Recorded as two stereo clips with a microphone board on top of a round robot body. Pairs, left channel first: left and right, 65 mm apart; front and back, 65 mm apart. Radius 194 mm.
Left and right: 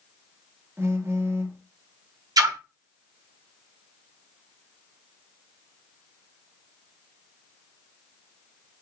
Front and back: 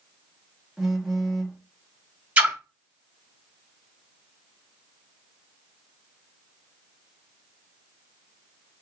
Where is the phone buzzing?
95° right, 1.6 m.